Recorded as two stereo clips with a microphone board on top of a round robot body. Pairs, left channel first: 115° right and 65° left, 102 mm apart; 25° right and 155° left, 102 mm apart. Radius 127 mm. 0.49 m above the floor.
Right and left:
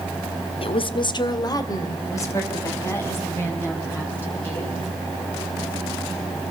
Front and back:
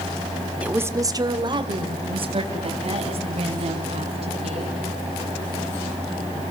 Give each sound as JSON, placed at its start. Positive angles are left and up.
{"t": 0.6, "sound": "a woman speaking", "azimuth_deg": -125, "distance_m": 1.2}